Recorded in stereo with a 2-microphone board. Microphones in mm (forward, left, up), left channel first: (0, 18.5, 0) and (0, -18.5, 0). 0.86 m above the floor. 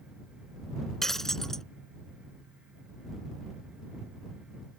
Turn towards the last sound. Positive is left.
turn(degrees=10)  # may be behind; listen again after turning